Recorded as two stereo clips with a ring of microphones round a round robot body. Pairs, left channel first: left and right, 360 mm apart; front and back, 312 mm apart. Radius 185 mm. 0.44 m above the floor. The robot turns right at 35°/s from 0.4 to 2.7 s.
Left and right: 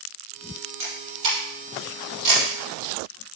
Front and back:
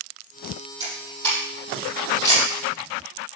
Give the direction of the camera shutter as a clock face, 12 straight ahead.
3 o'clock.